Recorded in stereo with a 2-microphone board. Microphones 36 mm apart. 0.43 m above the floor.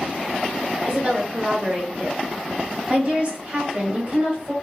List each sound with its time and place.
0.8 s a woman speaking: 30° right (ahead or behind), 1.6 m